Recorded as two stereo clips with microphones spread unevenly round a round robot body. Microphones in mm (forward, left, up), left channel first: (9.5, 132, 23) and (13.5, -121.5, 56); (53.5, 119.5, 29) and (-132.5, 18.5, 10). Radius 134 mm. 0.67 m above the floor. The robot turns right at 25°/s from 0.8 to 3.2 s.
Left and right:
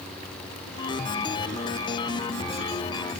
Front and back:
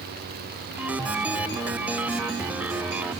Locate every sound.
Only background noise.